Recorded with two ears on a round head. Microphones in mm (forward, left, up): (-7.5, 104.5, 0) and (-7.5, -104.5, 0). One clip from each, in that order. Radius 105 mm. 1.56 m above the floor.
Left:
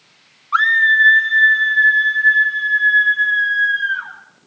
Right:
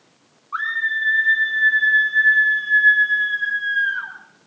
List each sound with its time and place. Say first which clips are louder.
0.5 s a scream: left 10 dB; 70° left (ahead or behind), 1.3 m; by 4.1 s 20° left (ahead or behind), 6 m